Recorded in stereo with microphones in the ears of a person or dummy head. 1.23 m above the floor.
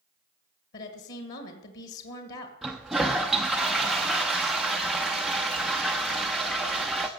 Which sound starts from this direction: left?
A woman speaking, at 0.7 s.